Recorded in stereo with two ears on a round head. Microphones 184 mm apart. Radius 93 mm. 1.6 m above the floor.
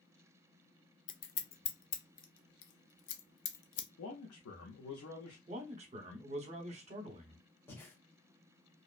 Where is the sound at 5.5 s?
35° right (ahead or behind), 0.9 m.